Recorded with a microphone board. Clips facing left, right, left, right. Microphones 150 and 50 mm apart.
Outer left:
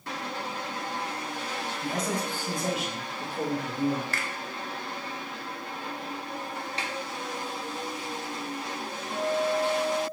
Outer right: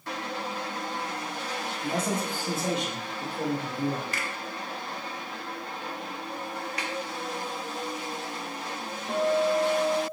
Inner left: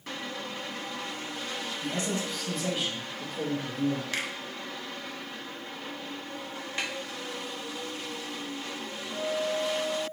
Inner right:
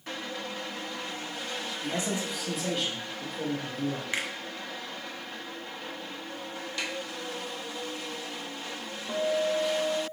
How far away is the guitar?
About 0.6 m.